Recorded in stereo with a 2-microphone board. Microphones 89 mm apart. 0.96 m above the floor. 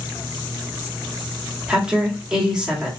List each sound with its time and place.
1.7 s a woman speaking: 10° right (ahead or behind), 1.9 m